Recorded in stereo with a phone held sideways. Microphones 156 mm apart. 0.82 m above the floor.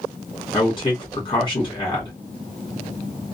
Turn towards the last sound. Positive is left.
turn(degrees=35)  # may be behind; listen again after turning